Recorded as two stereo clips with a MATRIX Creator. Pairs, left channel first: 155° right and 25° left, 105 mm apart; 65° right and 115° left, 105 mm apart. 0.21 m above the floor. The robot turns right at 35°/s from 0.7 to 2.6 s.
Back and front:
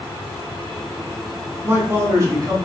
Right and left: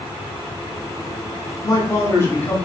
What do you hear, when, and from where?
1.6 s a man speaking: 40° right, 1.3 m; by 2.6 s 5° right, 1.3 m